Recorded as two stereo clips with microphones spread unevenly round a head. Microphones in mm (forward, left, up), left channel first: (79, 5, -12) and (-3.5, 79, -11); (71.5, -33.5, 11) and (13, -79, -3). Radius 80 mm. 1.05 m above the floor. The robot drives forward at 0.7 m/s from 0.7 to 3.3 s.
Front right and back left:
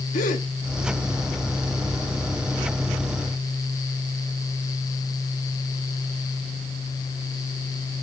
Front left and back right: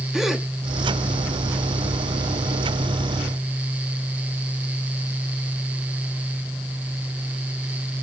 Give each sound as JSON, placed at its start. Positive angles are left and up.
{"t": 0.1, "sound": "a gasp", "azimuth_deg": -55, "distance_m": 1.5}